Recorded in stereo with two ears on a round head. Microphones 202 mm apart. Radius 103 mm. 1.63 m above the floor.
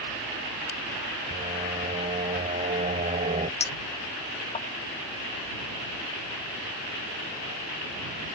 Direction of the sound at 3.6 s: 30° left (ahead or behind).